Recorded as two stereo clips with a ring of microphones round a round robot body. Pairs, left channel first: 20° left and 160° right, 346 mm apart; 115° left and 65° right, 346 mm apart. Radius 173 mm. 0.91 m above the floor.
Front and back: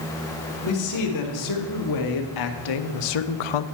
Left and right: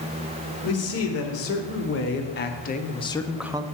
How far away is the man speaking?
About 2.5 m.